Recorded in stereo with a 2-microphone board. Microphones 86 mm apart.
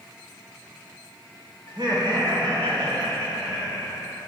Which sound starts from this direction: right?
Laughter, at 1.7 s.